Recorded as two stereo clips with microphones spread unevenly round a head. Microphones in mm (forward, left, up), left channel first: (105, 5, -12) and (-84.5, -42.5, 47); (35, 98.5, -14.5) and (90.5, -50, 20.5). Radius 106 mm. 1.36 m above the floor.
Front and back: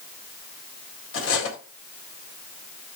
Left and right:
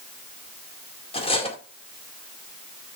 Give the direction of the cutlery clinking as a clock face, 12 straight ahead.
10 o'clock.